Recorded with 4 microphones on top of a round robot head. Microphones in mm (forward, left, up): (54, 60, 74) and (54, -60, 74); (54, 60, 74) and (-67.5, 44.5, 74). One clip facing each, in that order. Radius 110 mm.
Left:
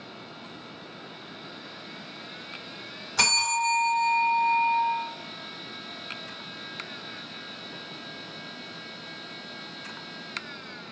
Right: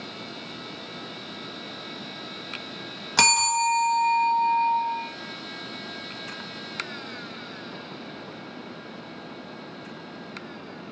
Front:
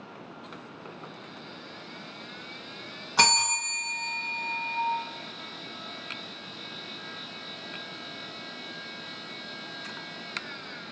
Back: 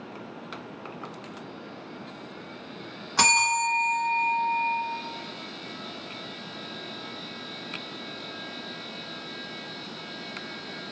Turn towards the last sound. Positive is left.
turn(degrees=-80)